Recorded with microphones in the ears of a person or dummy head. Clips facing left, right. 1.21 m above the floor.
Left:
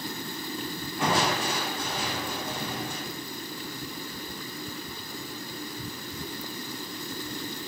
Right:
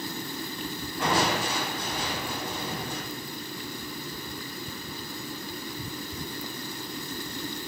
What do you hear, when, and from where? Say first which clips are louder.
1.0 s crushing: even; 60° left (ahead or behind), 0.8 m